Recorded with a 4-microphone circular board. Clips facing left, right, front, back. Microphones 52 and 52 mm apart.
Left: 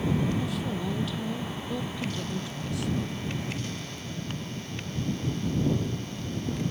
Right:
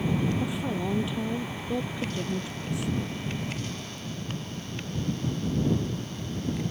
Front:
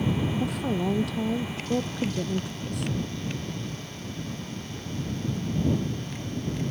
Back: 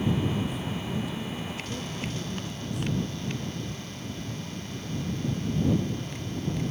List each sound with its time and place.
0.4 s a woman speaking: 20° right